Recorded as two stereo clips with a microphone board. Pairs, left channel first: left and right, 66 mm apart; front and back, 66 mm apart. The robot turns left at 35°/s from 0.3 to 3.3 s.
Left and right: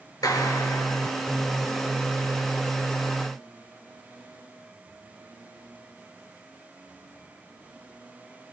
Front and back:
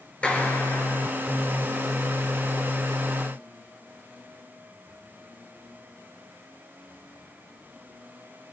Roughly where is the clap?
Left.